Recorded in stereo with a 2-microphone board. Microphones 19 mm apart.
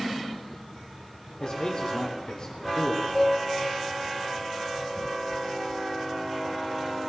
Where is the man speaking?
45° left (ahead or behind), 2 m.